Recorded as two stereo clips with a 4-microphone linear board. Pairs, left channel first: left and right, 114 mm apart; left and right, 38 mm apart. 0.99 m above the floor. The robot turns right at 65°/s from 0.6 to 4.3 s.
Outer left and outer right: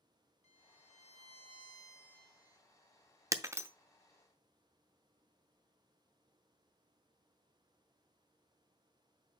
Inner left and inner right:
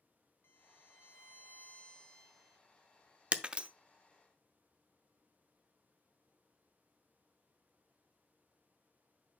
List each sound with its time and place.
0.4 s a violin: 70° left, 1.5 m; by 2.6 s 160° right, 1.5 m
3.3 s breaking glass: 30° right (ahead or behind), 0.6 m; by 3.7 s 20° right (ahead or behind), 0.6 m